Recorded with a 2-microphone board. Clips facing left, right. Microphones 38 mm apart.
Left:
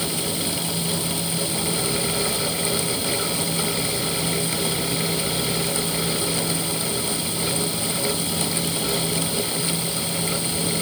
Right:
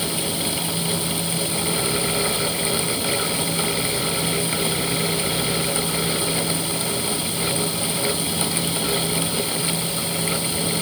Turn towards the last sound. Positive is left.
No sound to turn to.